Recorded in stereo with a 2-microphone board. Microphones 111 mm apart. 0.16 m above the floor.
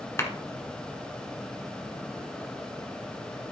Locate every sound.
0.2 s a clap: 25° left (ahead or behind), 1.6 m